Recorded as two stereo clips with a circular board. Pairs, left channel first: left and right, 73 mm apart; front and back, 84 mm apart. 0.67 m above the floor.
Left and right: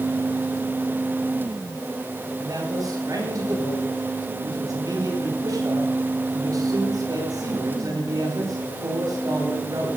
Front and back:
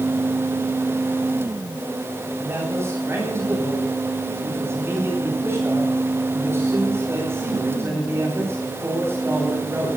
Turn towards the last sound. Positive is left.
turn(degrees=-120)